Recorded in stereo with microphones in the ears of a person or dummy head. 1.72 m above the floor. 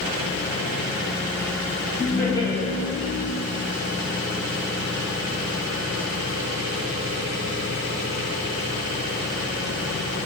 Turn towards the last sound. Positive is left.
turn(degrees=30)  # may be behind; listen again after turning